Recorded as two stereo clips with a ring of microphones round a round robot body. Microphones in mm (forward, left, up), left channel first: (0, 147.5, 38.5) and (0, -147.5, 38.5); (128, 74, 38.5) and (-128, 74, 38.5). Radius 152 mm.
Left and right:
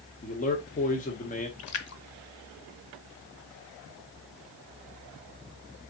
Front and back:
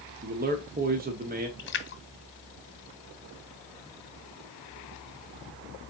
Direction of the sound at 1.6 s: 50° left.